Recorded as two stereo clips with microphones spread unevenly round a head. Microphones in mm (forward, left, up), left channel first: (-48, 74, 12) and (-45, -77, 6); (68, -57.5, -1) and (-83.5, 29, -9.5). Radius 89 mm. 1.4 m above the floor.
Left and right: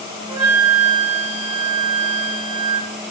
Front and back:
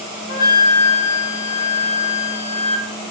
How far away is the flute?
About 4 m.